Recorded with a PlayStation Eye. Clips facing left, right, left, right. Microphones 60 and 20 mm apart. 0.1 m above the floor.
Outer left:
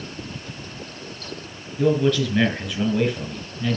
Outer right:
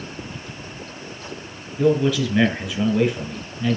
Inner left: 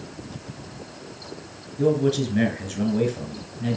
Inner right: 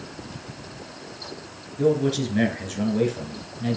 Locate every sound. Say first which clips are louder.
1.8 s a man speaking: outer right 1 dB, even; 5° right (ahead or behind), 1.8 m